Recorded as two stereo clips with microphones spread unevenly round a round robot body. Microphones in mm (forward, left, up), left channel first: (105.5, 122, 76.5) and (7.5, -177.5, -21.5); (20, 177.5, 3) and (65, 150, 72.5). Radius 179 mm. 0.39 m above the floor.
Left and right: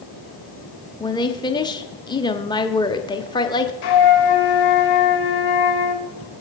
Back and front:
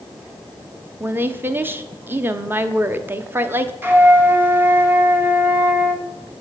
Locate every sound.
1.0 s a woman speaking: 165° left, 0.9 m
3.8 s a flute: 60° left, 2 m